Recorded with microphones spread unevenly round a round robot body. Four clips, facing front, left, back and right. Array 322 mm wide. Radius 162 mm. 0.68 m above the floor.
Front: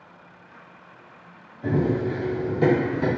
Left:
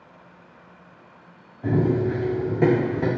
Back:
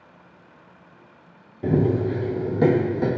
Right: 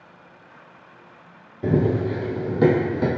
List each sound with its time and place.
1.6 s running footsteps: 105° right, 0.8 m; by 3.1 s 110° right, 1.9 m